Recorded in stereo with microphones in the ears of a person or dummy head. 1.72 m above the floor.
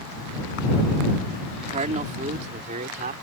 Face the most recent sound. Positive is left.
turn(degrees=-45)  # may be behind; listen again after turning